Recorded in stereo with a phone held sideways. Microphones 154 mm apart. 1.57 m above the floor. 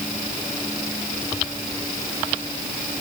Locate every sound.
Only background noise.